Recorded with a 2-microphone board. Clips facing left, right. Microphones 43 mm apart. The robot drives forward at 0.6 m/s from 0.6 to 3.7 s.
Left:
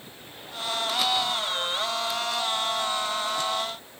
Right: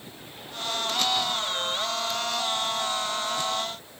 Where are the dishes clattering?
I don't hear dishes clattering.